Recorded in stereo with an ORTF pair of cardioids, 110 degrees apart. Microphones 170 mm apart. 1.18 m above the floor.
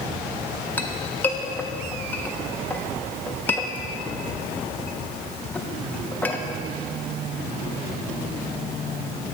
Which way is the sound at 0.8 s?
10° left.